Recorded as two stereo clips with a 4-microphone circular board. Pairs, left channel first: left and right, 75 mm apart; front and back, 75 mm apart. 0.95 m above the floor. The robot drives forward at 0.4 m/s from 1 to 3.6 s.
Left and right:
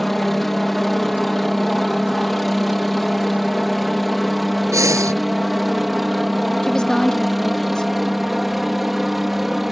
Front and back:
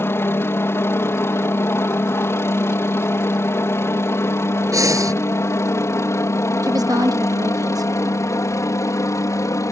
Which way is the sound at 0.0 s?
5° left.